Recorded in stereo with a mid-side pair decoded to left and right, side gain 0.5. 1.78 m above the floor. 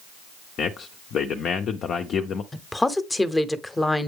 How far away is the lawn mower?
I don't hear a lawn mower.